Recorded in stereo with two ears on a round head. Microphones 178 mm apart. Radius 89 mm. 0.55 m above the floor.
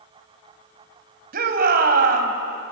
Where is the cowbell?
I don't hear a cowbell.